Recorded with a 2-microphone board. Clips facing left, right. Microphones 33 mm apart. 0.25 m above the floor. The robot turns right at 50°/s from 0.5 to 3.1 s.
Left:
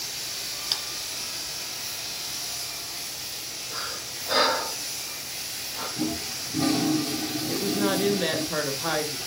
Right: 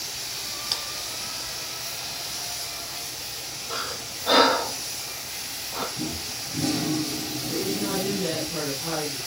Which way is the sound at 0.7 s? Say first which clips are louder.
Even; 10° left (ahead or behind).